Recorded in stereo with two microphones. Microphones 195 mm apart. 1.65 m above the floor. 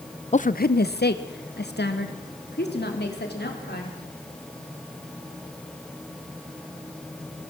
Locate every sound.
0.3 s a woman speaking: 35° left (ahead or behind), 0.6 m; by 4.0 s 55° left (ahead or behind), 4 m